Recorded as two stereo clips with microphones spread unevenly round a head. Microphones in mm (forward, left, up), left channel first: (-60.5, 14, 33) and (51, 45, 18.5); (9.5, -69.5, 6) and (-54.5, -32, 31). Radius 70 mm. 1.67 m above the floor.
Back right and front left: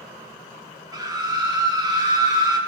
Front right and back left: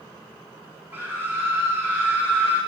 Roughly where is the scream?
Left.